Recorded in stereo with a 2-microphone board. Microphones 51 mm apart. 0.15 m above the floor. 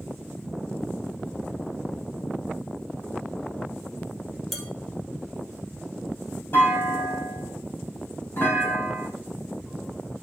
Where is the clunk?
45° left (ahead or behind), 4.5 m.